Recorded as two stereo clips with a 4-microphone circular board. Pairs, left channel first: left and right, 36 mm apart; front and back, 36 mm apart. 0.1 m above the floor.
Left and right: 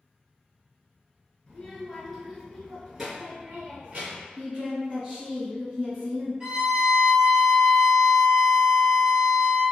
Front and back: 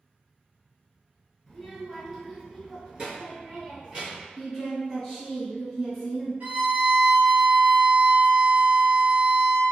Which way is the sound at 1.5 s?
90° left.